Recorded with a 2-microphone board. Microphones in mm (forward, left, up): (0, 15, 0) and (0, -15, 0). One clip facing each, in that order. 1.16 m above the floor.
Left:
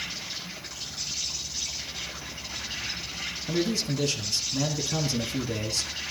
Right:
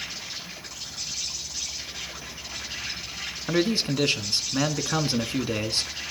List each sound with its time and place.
0.0 s an insect: 15° left (ahead or behind), 7.5 m
3.5 s a man speaking: 40° right (ahead or behind), 1.7 m